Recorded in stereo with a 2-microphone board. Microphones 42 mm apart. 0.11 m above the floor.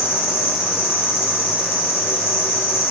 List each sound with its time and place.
0.0 s an insect: 80° left, 1.2 m